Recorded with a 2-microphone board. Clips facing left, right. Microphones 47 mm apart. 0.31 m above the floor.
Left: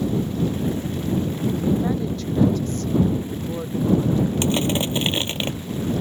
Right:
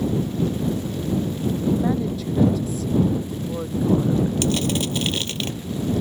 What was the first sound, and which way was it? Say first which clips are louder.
A woman speaking: right 1 dB; 5° right (ahead or behind).